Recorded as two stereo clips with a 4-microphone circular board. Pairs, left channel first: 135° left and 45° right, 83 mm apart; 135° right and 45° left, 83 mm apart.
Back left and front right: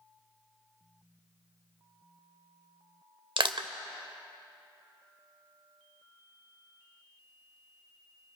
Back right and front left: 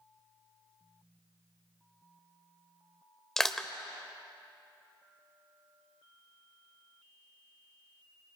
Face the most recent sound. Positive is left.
turn(degrees=-50)